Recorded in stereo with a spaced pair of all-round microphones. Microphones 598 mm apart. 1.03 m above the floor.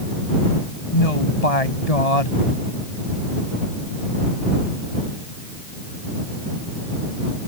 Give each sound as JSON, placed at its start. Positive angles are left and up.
{"t": 0.9, "sound": "a woman speaking", "side_deg": 85}